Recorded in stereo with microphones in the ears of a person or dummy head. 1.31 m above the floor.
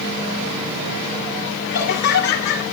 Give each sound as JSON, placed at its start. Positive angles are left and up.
{"t": 1.7, "sound": "laughter", "side_deg": 55, "distance_m": 2.5}